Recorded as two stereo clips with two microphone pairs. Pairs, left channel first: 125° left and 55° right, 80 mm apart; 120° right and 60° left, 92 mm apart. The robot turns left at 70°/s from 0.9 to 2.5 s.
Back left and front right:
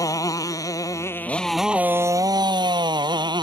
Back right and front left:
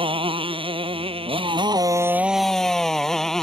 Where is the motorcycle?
80° left; by 3.4 s 35° right.